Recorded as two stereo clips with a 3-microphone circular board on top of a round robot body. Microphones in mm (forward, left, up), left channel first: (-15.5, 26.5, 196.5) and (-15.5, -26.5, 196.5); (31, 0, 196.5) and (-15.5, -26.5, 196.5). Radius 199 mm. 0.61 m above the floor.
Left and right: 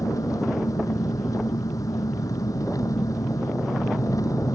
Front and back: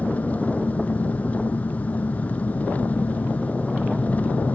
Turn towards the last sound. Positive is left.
turn(degrees=95)